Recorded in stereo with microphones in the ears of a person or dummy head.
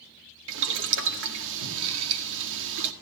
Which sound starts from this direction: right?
Boiling, at 0.5 s.